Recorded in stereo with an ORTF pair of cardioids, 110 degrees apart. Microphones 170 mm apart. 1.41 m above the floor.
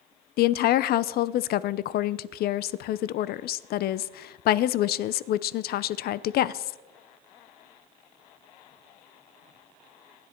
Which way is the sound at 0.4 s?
65° left.